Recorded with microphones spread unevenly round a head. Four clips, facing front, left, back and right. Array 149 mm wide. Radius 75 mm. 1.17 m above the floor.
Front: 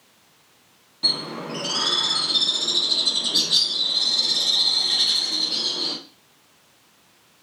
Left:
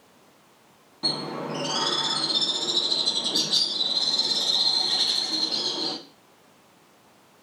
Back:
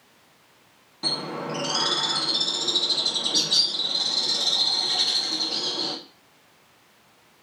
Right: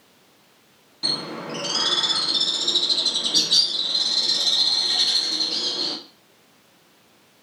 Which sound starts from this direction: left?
A bird, at 1.0 s.